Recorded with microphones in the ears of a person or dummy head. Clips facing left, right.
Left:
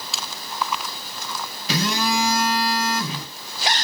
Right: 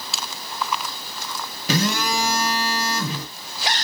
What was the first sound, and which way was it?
A phone buzzing, 40° right (ahead or behind).